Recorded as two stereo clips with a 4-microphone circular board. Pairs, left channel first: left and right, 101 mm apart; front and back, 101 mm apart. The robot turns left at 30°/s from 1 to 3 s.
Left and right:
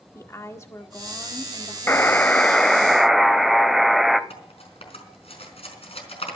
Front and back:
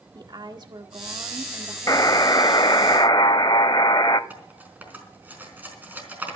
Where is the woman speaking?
145° left, 1.6 m; by 2.9 s 90° left, 1.6 m.